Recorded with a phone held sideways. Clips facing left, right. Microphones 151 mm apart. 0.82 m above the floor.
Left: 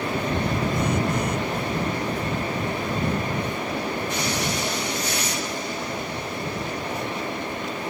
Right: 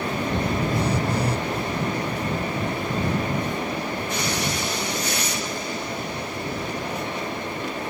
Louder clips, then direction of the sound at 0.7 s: Even; 35° right (ahead or behind).